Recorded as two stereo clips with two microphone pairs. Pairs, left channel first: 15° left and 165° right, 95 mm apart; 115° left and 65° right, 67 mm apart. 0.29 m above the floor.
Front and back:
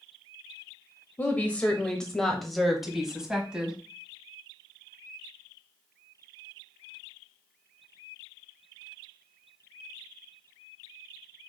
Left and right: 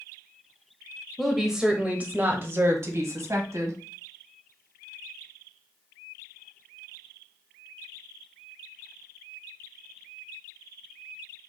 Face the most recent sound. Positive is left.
turn(degrees=-85)